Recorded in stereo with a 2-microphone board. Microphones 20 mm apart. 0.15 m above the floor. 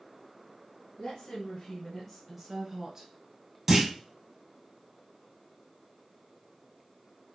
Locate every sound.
1.0 s a woman speaking: 25° left (ahead or behind), 2.0 m; by 3.1 s 30° right (ahead or behind), 1.4 m
3.7 s a clunk: 15° right (ahead or behind), 1.6 m